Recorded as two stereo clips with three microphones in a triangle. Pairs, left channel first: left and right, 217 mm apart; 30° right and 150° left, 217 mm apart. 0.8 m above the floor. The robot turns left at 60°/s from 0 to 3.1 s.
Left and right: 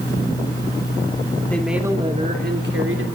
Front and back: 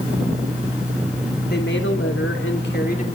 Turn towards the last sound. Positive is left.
turn(degrees=-85)